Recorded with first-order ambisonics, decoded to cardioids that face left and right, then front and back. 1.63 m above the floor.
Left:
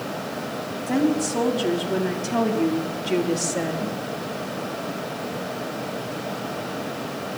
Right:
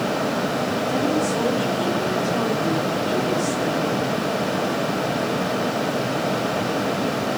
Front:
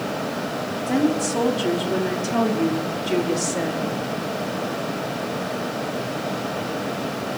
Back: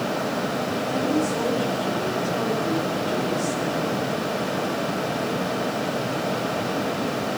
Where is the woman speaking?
35° left, 5 m; by 4.0 s 50° left, 3.5 m.